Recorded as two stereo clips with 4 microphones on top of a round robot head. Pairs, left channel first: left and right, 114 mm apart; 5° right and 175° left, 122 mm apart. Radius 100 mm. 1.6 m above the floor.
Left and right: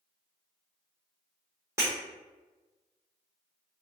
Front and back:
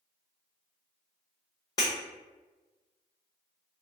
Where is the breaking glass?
40° right, 0.8 m.